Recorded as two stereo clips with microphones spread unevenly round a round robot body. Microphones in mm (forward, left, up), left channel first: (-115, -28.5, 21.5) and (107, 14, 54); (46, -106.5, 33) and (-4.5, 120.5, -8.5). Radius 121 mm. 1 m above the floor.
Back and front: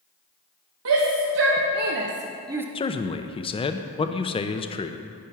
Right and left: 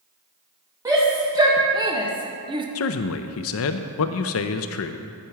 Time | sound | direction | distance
0.8 | a shout | 30° left | 1.5 m
2.8 | a man speaking | 110° right | 0.5 m